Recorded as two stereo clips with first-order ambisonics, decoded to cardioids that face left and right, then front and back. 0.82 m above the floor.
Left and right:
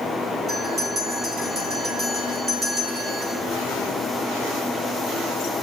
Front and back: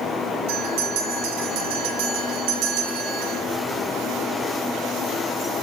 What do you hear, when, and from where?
0.5 s a bell: 165° right, 8.5 m